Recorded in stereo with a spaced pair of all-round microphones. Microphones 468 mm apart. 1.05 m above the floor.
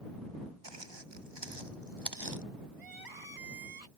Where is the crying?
50° right (ahead or behind).